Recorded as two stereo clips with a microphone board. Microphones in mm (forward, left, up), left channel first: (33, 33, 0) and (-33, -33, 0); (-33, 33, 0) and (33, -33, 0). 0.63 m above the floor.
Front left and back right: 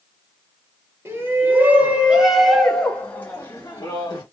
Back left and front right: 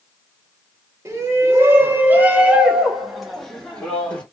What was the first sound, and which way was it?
A shout, 90° right.